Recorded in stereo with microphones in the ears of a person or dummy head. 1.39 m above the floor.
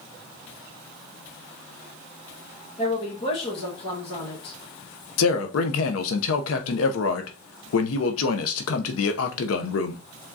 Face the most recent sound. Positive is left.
turn(degrees=80)